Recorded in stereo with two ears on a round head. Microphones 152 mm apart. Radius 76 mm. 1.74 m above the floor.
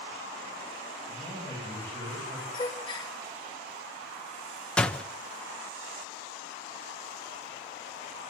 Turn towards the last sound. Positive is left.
turn(degrees=5)  # may be behind; listen again after turning